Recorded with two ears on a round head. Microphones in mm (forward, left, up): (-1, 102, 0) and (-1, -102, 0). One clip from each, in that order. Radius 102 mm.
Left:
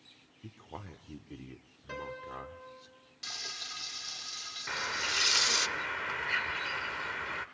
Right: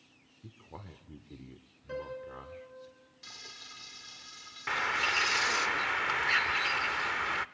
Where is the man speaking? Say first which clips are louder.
Left 3 dB; 20° left (ahead or behind), 0.9 m.